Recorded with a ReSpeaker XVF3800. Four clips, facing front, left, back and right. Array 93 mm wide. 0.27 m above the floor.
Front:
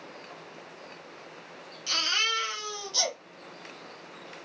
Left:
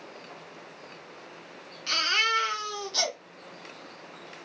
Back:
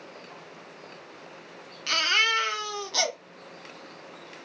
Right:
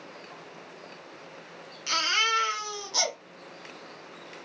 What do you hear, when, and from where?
1.9 s a baby crying: 165° right, 1.5 m